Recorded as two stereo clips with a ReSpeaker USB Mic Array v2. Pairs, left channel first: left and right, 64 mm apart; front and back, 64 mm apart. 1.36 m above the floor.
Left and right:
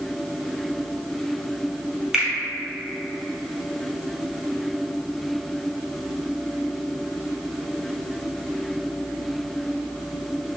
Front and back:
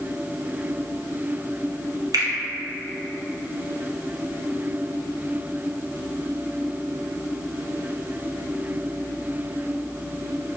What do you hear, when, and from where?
2.1 s a finger snap: 170° right, 0.7 m